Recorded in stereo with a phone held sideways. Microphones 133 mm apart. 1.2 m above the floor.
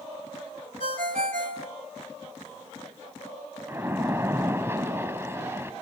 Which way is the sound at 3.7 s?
20° right (ahead or behind).